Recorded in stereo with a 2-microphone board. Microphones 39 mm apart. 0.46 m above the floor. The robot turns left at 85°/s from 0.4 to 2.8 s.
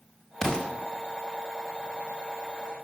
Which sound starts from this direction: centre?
An explosion, at 0.4 s.